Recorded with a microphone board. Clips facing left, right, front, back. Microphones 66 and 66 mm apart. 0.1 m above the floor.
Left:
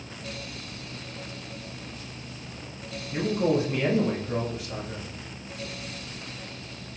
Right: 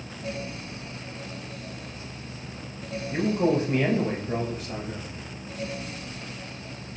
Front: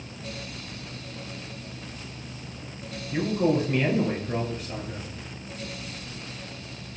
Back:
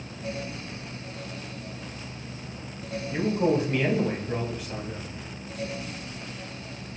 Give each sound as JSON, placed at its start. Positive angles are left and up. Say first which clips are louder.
{"t": 3.1, "sound": "a man speaking", "louder": "right 1 dB, even", "azimuth_deg": -95, "distance_m": 1.3}